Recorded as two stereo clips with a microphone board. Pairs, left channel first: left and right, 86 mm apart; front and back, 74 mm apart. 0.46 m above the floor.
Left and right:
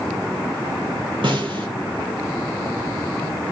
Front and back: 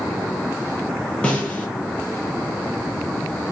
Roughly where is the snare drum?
Right.